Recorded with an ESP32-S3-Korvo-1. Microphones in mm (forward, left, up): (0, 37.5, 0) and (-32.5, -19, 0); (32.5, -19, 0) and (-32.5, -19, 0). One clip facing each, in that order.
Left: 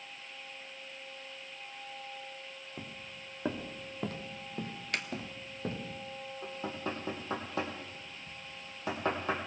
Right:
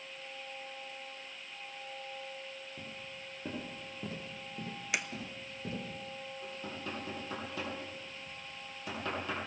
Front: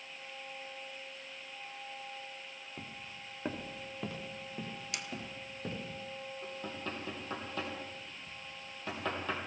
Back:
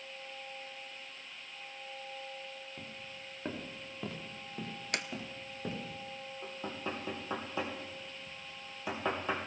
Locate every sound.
2.8 s footsteps: 70° left, 1.6 m; by 5.9 s 100° left, 3.5 m
4.9 s a sliding door: 160° left, 0.7 m
6.4 s knocking: 105° left, 3 m